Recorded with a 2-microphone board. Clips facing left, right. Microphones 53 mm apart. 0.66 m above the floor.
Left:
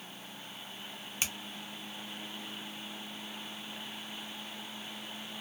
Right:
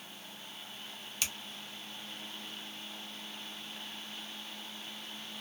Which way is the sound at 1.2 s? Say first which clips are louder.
Left 2 dB; 25° left (ahead or behind).